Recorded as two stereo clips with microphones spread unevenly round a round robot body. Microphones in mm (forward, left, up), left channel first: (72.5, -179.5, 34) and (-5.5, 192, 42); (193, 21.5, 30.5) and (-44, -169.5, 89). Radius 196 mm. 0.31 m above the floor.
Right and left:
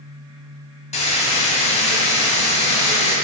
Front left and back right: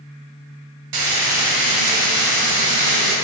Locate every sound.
0.9 s frying: 150° right, 1.2 m